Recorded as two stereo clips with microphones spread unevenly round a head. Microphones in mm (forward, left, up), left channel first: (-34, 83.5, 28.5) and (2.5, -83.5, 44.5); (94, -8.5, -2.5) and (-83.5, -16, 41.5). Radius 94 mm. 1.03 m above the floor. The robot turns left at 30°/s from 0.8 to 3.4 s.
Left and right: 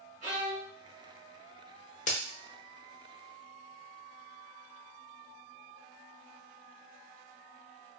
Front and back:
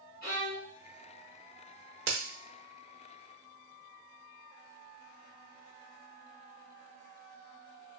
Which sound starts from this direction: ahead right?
A violin, at 0.2 s.